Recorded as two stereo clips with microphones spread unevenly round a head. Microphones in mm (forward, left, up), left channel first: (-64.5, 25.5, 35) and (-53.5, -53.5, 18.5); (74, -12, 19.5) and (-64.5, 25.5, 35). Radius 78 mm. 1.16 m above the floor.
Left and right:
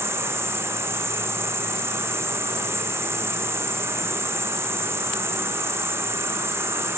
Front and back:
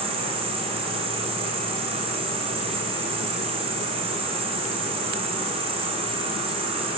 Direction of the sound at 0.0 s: 140° right.